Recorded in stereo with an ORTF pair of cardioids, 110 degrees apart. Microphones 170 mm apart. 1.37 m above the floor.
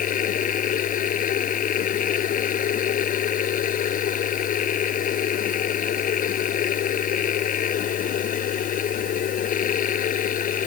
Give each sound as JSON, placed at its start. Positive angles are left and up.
{"t": 0.0, "sound": "a machine running", "azimuth_deg": 55}